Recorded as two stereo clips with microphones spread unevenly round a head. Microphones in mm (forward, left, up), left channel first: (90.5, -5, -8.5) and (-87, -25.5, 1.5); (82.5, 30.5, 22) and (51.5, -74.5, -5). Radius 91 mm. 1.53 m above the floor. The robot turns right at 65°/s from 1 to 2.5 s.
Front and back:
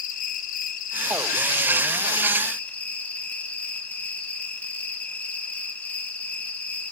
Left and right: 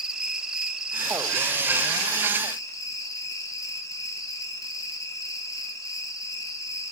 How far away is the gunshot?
I don't hear a gunshot.